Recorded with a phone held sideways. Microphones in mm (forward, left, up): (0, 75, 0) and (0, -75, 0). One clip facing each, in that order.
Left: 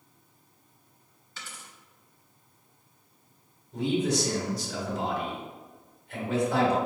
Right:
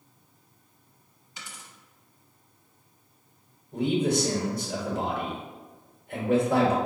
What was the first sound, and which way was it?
A dropped coin, 15° right (ahead or behind).